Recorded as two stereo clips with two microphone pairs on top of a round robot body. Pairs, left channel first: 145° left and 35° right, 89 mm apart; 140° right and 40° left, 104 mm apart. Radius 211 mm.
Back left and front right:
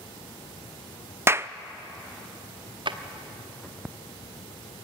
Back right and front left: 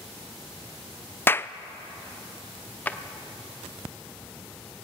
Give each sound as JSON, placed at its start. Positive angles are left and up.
{"t": 1.3, "sound": "a clap", "azimuth_deg": -95, "distance_m": 0.7}
{"t": 2.9, "sound": "a drawer", "azimuth_deg": -65, "distance_m": 1.1}